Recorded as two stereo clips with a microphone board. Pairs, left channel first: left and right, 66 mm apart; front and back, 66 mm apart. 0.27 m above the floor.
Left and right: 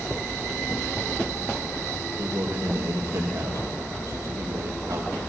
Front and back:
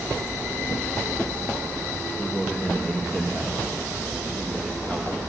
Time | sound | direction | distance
2.2 | a man speaking | 65° right | 7 m